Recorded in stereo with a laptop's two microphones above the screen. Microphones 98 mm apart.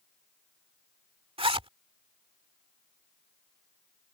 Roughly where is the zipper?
Right.